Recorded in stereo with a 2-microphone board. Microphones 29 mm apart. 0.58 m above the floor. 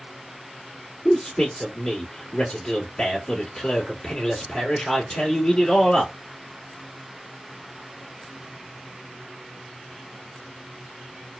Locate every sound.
1.1 s a man speaking: 30° left (ahead or behind), 1.3 m